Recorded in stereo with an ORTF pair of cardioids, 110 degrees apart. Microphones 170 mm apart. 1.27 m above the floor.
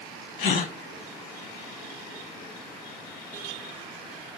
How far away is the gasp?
About 1.3 m.